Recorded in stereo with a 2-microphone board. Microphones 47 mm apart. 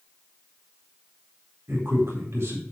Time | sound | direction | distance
1.7 | a man speaking | 70° right (ahead or behind) | 3.5 m